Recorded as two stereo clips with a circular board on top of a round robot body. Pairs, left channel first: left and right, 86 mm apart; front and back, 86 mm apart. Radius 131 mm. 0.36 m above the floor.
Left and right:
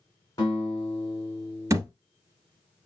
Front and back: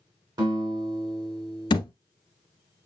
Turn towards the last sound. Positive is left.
turn(degrees=-35)